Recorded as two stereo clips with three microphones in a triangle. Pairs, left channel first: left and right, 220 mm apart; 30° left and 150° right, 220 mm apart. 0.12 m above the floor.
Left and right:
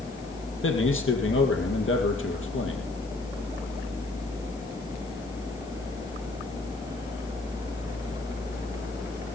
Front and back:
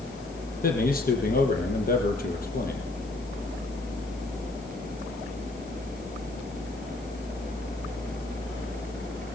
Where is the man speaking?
75° left, 4.5 m.